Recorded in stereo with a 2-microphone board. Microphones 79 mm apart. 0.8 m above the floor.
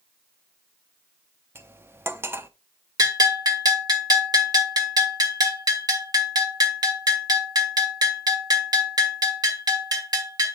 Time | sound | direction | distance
1.6 | cutlery clinking | 30° right (ahead or behind) | 0.6 m
3.0 | a bell | 55° right (ahead or behind) | 1.2 m